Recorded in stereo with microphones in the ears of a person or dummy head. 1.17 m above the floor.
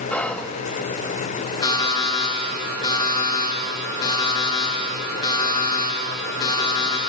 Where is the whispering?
10° left (ahead or behind), 0.9 m.